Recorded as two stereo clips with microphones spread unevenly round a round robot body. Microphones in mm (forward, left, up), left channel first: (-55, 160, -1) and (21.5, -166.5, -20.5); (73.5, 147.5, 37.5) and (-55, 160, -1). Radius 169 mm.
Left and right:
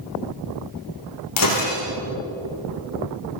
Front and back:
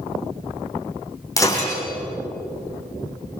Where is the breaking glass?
60° left, 8 m.